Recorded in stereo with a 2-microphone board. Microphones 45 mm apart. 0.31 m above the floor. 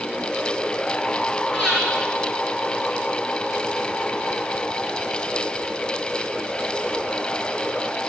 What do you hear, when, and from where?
1.5 s breathing: 25° left (ahead or behind), 4 m